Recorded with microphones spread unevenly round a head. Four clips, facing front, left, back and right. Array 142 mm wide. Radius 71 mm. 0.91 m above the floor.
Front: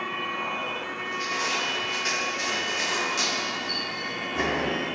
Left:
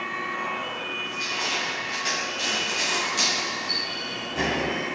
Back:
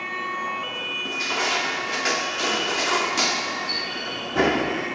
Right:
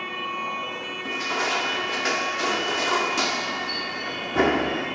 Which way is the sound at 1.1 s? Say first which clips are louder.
Right 8 dB, back 4 dB; 135° right.